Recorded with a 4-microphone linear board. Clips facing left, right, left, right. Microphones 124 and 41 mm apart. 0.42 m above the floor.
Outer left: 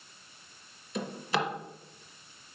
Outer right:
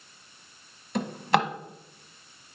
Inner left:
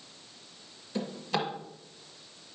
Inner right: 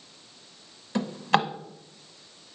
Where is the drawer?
60° right (ahead or behind), 1.0 m.